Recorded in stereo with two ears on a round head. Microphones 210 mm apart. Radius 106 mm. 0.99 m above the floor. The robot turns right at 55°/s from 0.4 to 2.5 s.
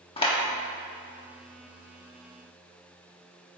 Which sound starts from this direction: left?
A clap, at 0.2 s.